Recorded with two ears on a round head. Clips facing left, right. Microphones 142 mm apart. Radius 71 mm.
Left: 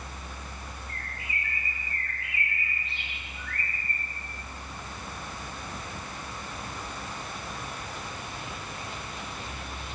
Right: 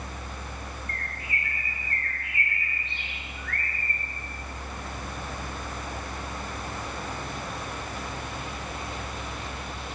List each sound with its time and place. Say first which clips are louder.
0.9 s a bird: right 3 dB; 5° left (ahead or behind), 1.2 m